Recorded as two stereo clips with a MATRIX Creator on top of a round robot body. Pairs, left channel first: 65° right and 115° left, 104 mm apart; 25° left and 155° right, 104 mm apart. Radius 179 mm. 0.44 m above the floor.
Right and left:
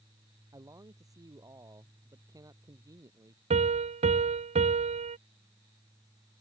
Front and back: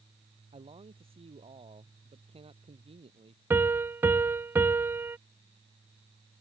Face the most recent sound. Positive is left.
turn(degrees=130)